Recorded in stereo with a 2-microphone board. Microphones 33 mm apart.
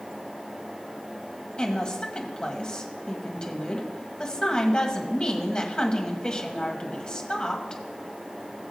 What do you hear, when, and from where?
1.6 s a woman speaking: 25° left (ahead or behind), 1.6 m